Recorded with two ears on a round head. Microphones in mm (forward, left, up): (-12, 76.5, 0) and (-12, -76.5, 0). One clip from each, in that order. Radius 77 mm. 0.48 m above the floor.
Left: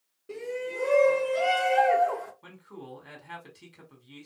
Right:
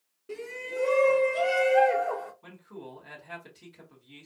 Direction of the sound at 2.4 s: 35° left (ahead or behind).